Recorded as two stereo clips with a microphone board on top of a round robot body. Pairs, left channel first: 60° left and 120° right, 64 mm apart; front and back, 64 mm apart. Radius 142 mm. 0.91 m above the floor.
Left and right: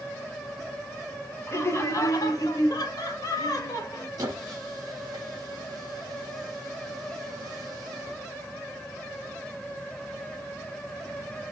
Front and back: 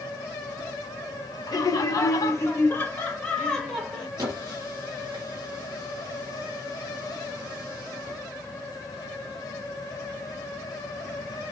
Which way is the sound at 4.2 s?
155° right.